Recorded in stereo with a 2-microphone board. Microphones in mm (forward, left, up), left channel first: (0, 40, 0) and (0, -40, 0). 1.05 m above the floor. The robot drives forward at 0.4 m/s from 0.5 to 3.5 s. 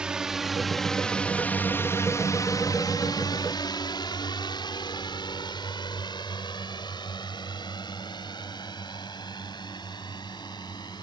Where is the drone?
10° right (ahead or behind); by 11.0 s 65° left (ahead or behind).